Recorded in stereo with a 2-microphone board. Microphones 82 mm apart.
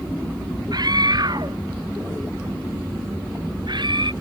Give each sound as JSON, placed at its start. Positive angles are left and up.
{"t": 0.7, "sound": "a scream", "side_deg": -55}